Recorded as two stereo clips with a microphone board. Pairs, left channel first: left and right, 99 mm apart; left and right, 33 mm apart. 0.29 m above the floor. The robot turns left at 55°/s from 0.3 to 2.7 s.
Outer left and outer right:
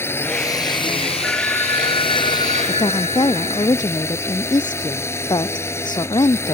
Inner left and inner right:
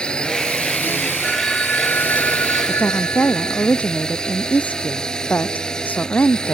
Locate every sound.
0.0 s a drone: 155° left; by 6.6 s 25° left
1.2 s a phone ringing: 175° left; by 3.7 s 95° left
2.7 s a woman speaking: 45° left (ahead or behind)